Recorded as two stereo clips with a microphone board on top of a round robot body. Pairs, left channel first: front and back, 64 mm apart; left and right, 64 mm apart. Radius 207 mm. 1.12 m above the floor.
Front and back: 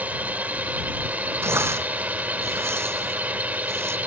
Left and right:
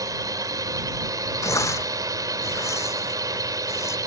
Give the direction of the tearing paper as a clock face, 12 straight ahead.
8 o'clock.